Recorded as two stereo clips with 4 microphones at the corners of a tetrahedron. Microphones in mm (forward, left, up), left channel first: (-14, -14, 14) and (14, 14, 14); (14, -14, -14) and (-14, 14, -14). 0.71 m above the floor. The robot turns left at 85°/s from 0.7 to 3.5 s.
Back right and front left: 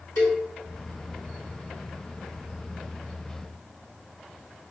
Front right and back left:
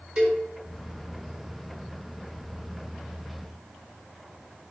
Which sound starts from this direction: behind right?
A cowbell, at 0.2 s.